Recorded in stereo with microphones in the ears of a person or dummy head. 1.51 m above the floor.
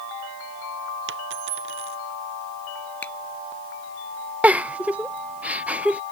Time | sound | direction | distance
1.1 | a dropped coin | 70° right (ahead or behind) | ?
3.0 | a finger snap | 10° left (ahead or behind) | ?
4.4 | a giggle | 10° right (ahead or behind) | ?